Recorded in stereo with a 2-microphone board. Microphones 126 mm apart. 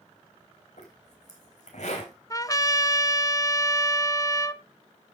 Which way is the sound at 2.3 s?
30° left (ahead or behind).